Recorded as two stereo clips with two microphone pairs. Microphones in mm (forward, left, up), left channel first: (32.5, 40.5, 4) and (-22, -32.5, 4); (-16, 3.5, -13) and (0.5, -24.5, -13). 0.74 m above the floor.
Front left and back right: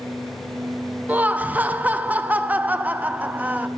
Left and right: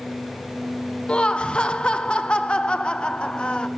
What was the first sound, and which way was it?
Laughter, 170° left.